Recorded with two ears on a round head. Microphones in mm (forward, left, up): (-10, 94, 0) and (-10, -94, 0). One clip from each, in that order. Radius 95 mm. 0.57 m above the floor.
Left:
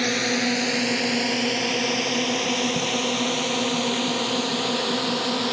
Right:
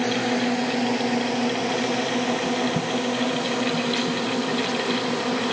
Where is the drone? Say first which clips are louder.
Left 1 dB; 80° left; by 5.5 s 85° left.